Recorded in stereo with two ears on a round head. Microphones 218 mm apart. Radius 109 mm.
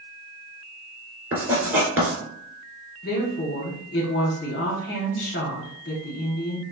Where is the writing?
10° right (ahead or behind), 2.5 m.